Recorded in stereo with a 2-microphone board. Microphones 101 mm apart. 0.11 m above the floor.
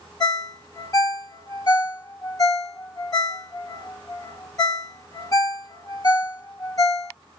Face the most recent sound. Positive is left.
turn(degrees=35)  # may be behind; listen again after turning